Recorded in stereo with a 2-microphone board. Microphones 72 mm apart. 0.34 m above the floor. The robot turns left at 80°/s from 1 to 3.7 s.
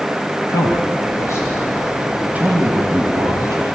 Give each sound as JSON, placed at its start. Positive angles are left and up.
{"t": 0.5, "sound": "a man speaking", "side_deg": 55, "distance_m": 2.0}